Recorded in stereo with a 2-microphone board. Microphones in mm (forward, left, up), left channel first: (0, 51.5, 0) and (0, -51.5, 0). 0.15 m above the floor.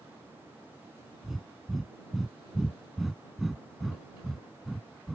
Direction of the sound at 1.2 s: Centre (ahead or behind).